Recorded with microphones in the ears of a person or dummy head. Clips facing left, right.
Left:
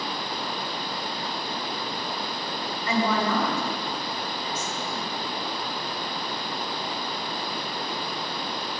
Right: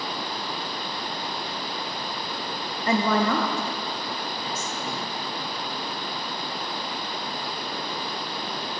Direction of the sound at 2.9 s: 35° right (ahead or behind).